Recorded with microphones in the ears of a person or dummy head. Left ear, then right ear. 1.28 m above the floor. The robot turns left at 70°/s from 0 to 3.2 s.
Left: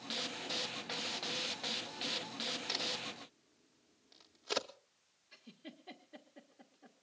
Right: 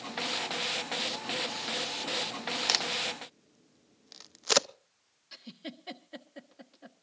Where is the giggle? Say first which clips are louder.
Right 10 dB; 75° right (ahead or behind), 1.3 m.